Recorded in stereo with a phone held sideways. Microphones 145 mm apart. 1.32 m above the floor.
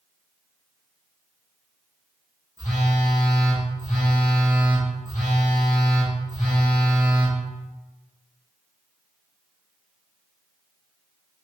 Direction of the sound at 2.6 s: 65° left (ahead or behind).